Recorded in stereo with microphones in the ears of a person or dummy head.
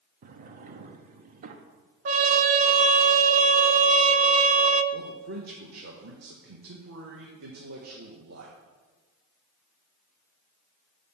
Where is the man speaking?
55° right (ahead or behind), 1.0 m.